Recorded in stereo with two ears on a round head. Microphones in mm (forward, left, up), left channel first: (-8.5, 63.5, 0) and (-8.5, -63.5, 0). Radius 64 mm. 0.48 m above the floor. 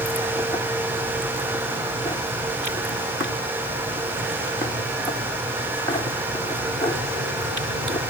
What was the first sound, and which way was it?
Only background noise.